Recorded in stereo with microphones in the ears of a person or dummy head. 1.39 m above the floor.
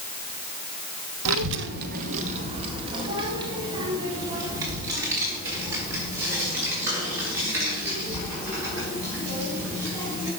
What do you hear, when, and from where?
1.2 s a child speaking: 80° right, 0.8 m; by 10.3 s 10° right (ahead or behind), 8.5 m